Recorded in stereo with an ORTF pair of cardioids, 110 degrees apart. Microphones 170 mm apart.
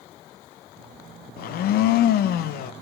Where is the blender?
65° left, 0.5 m.